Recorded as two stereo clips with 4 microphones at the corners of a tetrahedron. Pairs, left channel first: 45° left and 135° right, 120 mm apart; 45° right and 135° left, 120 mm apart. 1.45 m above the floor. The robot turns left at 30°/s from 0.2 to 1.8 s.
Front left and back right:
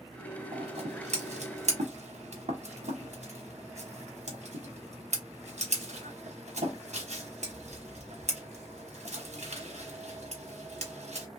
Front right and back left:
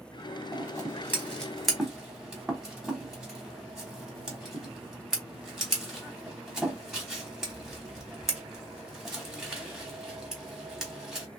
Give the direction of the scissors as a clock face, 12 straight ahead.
3 o'clock.